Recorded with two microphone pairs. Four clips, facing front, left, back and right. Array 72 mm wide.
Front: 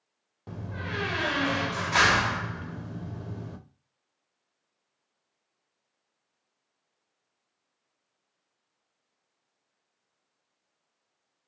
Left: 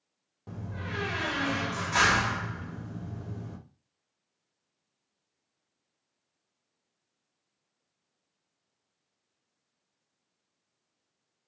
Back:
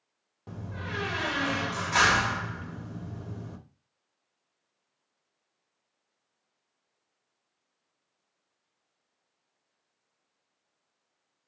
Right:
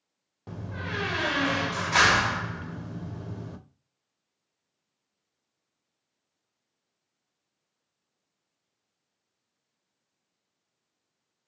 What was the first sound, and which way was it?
A door slam, 70° right.